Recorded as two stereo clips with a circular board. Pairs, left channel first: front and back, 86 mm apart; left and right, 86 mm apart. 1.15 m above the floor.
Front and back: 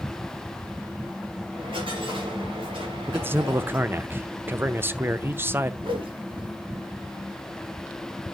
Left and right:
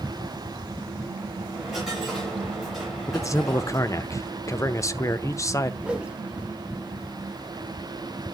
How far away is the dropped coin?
About 7 m.